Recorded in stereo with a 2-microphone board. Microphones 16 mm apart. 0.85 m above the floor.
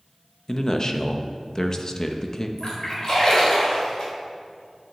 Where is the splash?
45° left (ahead or behind), 4 m.